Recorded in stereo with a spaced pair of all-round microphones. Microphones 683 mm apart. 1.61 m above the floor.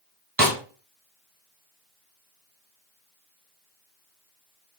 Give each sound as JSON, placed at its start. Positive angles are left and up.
{"t": 0.4, "sound": "a snare drum", "side_deg": -25, "distance_m": 1.0}